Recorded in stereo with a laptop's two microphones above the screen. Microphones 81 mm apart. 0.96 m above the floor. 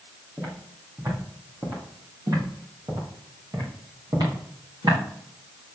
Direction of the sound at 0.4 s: 35° right (ahead or behind).